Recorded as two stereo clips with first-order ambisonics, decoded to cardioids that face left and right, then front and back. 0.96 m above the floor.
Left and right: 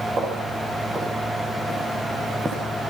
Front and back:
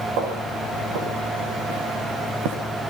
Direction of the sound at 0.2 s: 160° right.